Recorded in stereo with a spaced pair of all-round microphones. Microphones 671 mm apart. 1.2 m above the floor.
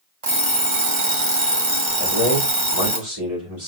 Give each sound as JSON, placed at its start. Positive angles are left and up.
{"t": 0.2, "sound": "an alarm clock", "side_deg": -45, "distance_m": 1.3}
{"t": 2.0, "sound": "a man speaking", "side_deg": -40, "distance_m": 3.5}